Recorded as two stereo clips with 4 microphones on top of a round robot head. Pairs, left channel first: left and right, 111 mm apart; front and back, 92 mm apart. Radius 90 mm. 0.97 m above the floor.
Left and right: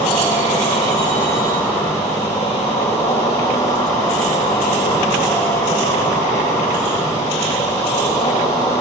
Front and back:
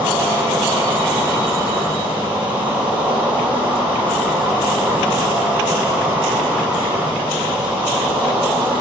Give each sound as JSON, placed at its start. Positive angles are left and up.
{"t": 0.0, "sound": "an insect", "azimuth_deg": 110, "distance_m": 7.0}